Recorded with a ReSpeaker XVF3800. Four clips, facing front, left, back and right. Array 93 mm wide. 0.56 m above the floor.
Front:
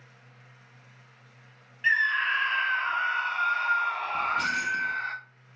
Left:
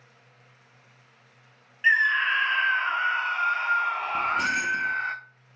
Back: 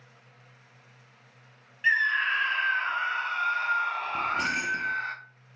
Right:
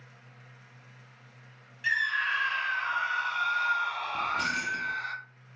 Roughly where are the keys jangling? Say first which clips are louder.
Left 4 dB, front 1 dB; behind left.